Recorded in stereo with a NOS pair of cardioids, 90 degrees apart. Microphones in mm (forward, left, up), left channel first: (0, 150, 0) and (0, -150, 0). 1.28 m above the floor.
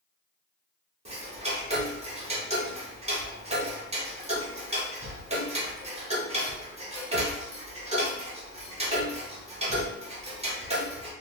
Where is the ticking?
20° right, 1.0 m.